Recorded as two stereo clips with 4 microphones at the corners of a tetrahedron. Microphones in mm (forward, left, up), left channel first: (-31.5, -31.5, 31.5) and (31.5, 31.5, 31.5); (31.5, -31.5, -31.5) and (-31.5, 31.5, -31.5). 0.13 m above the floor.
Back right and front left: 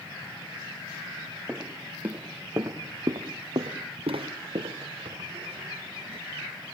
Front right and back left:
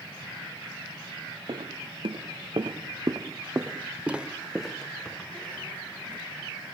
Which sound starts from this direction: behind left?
Footsteps, at 1.5 s.